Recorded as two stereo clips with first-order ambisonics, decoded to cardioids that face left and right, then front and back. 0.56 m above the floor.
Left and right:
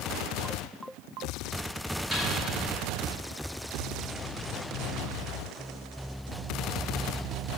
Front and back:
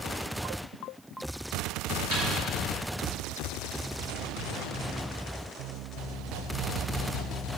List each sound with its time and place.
2.1 s a snare drum: 15° right, 2 m